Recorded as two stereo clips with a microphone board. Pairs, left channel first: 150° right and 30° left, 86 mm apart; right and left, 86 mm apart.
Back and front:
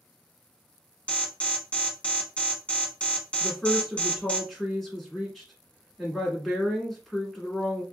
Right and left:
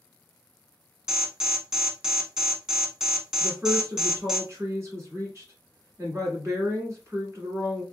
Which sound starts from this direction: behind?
An alarm, at 1.1 s.